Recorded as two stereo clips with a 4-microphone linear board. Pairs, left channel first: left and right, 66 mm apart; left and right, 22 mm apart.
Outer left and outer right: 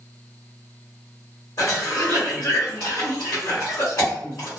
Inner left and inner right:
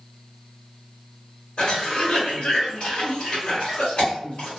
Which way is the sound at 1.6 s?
60° left (ahead or behind).